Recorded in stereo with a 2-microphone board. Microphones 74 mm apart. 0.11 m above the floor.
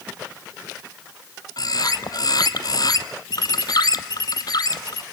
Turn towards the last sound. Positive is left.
turn(degrees=65)  # may be behind; listen again after turning